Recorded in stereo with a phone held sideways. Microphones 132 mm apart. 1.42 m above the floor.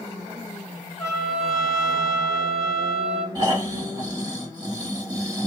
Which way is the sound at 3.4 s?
35° right (ahead or behind).